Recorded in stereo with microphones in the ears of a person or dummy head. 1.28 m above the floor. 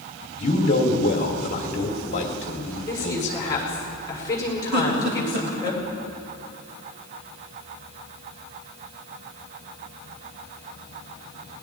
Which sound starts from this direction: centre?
A woman speaking, at 2.9 s.